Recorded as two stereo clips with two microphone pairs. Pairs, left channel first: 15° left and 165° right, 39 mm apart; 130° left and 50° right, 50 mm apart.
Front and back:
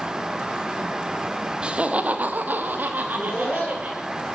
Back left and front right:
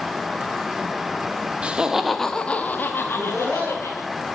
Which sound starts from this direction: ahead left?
Laughter, at 3.0 s.